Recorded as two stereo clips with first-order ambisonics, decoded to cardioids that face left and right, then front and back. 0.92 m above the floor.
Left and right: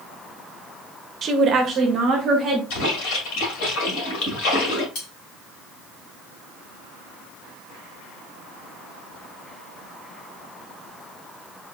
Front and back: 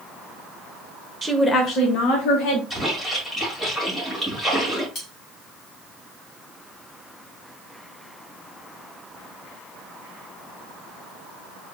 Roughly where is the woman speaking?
Behind right.